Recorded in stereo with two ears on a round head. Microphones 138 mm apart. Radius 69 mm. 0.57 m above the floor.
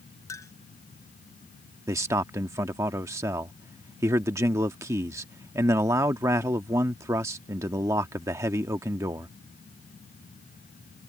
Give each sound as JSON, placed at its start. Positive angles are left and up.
{"t": 0.3, "sound": "a clink", "side_deg": 20}
{"t": 1.9, "sound": "a man speaking", "side_deg": -20}